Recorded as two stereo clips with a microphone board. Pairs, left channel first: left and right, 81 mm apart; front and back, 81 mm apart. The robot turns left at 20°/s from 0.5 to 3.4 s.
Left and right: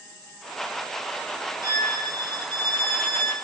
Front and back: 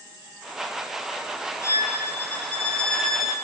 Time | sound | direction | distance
1.6 | a violin | 55° right | 4 m